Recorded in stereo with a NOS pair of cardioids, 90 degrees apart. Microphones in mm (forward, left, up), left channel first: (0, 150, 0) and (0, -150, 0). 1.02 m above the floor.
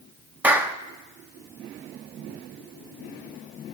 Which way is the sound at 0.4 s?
5° right.